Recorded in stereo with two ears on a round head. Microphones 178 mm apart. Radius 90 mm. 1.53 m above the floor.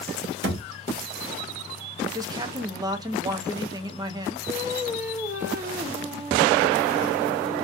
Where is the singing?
15° right (ahead or behind), 1.2 m.